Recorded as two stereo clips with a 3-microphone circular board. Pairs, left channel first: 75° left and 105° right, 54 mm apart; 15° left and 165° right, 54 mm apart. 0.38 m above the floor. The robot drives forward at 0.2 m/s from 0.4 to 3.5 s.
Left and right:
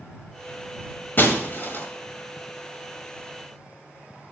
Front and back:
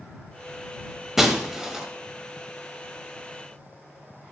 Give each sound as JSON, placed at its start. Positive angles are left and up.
{"t": 1.2, "sound": "breaking glass", "azimuth_deg": 115, "distance_m": 1.1}